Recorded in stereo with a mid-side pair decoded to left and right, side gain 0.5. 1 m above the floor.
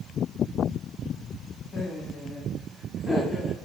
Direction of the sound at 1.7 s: 60° left.